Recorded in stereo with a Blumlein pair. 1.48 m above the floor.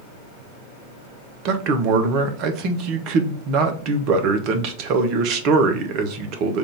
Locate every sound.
1.4 s a man speaking: 40° right, 0.8 m